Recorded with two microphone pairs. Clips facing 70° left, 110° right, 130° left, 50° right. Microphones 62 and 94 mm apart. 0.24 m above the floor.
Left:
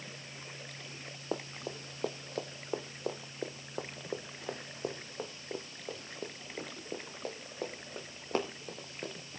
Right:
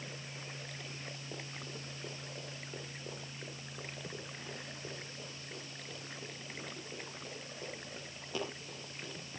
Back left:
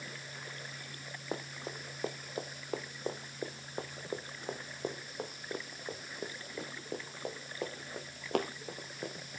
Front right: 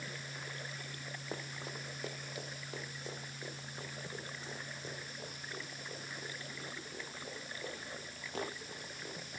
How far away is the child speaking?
No child speaking in this recording.